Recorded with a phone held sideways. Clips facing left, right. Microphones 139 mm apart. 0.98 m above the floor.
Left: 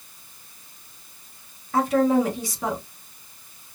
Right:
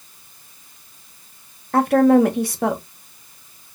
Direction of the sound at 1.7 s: 60° right (ahead or behind).